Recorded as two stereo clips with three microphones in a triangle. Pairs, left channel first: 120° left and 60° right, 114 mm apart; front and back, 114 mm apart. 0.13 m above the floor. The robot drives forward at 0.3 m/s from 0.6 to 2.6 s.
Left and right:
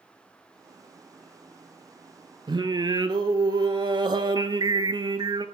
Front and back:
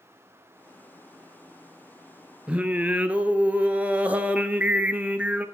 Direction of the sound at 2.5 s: 100° right.